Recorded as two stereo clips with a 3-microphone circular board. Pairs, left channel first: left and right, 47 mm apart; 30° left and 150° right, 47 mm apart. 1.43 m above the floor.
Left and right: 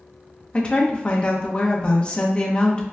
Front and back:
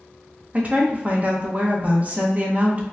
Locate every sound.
0.5 s a woman speaking: 155° left, 0.8 m